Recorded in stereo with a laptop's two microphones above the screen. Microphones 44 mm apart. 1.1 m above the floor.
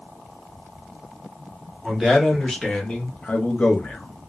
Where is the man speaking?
Centre (ahead or behind), 1.2 m; by 4.3 s 50° left (ahead or behind), 1.0 m.